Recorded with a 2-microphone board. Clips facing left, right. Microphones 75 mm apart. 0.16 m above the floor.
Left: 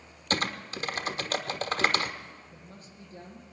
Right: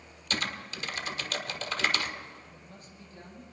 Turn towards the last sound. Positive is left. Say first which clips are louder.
# left 1 dB
turn(degrees=40)  # may be behind; listen again after turning